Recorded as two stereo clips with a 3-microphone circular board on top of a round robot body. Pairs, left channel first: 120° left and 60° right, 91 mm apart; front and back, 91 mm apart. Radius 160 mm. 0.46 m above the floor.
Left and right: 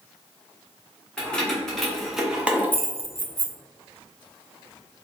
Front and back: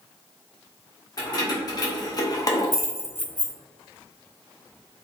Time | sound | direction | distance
1.2 | keys jangling | 40° left | 1.1 m